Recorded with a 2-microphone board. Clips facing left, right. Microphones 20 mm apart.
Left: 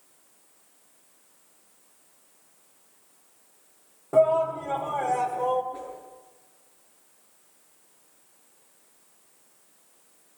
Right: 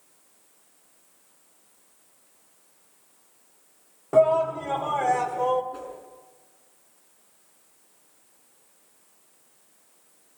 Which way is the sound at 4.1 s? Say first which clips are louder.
Right 1 dB; 30° right (ahead or behind).